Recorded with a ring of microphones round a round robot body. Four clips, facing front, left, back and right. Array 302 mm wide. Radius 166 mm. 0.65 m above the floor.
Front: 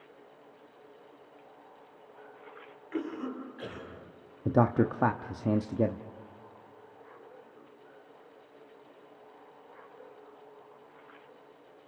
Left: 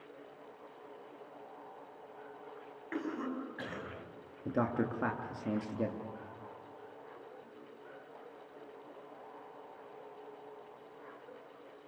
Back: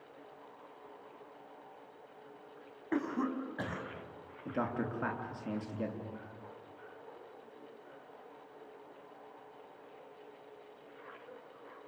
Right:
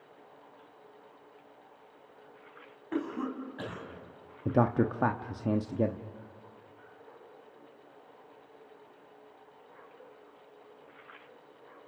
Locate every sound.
2.9 s a cough: 160° right, 5 m
4.5 s a man speaking: 30° right, 1.1 m